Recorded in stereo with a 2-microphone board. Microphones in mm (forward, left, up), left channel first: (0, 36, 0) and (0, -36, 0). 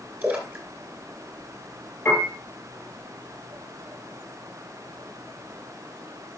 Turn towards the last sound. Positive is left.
turn(degrees=30)  # may be behind; listen again after turning